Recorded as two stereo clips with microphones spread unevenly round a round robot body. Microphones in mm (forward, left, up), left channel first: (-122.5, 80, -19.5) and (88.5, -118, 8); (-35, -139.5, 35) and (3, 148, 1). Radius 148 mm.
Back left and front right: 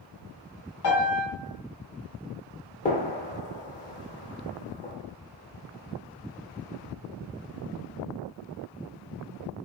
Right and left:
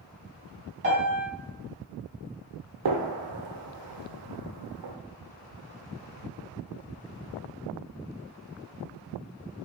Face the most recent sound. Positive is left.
turn(degrees=70)